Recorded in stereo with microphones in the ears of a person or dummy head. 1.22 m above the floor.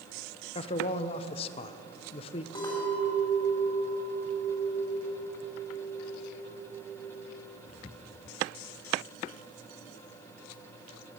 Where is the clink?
25° left (ahead or behind), 3 m.